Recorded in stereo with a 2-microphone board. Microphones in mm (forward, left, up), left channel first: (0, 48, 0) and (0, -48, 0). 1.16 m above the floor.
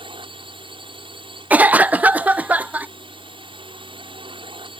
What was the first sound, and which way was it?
A drone, 60° right (ahead or behind).